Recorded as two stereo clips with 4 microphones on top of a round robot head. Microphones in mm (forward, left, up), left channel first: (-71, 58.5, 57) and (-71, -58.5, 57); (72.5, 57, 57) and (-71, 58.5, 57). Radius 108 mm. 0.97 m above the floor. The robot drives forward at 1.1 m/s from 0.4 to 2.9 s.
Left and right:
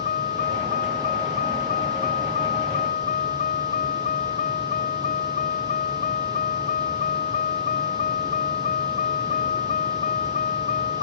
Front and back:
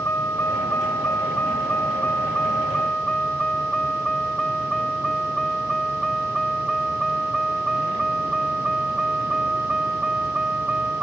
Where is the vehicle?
75° left; by 11.0 s 95° left.